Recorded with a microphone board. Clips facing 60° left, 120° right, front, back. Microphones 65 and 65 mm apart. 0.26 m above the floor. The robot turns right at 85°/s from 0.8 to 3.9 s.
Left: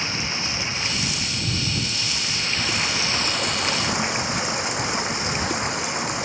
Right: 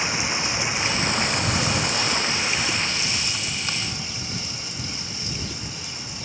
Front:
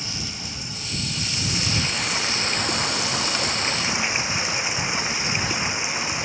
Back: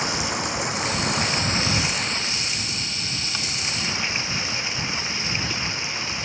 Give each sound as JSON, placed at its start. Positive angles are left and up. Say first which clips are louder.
{"t": 0.0, "sound": "running water", "louder": "right 2 dB, back 9 dB", "azimuth_deg": 165}